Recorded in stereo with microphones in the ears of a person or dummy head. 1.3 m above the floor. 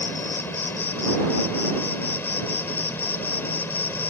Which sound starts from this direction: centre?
An insect, at 0.0 s.